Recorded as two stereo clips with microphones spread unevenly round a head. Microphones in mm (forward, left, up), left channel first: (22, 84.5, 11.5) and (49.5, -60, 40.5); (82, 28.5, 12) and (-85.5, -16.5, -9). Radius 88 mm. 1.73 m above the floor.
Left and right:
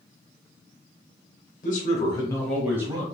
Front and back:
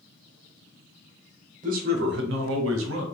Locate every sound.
1.6 s a man speaking: 150° left, 0.8 m; by 3.0 s 140° right, 0.8 m